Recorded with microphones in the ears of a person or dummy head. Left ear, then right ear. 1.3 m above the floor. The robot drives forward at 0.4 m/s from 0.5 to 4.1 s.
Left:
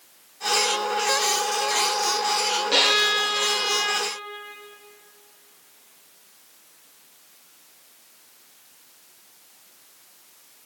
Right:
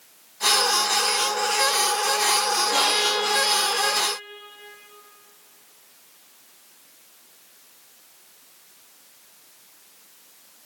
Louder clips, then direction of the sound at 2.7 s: Left 5 dB; 65° left (ahead or behind).